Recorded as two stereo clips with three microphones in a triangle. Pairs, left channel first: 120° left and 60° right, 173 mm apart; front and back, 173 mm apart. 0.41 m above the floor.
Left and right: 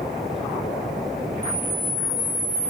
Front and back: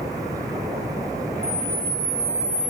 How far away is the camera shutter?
About 0.6 m.